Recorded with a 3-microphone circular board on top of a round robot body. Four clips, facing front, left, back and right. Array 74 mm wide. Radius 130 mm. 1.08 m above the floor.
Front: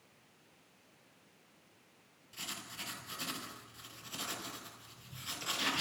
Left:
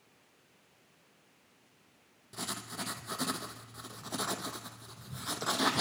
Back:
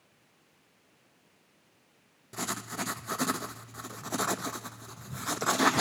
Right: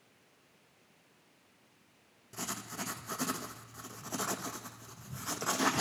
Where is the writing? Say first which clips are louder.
Even, back 12 dB; straight behind, 1.0 m.